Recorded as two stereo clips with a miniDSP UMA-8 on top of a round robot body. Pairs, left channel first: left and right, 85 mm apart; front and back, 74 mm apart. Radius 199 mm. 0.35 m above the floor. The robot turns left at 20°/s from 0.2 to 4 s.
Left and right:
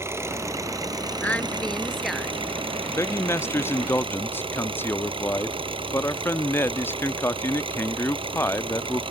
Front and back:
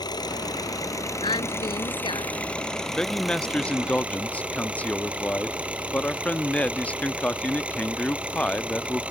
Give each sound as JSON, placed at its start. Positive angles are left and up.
{"t": 0.0, "sound": "an engine running", "azimuth_deg": -30}
{"t": 1.2, "sound": "a woman speaking", "azimuth_deg": 15}
{"t": 2.9, "sound": "a man speaking", "azimuth_deg": 75}